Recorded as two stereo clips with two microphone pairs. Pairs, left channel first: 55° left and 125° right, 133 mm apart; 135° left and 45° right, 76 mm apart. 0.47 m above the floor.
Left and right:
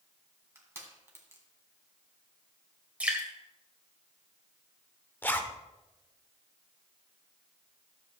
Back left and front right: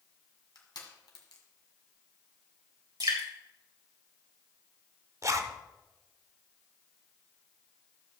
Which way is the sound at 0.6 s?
165° left.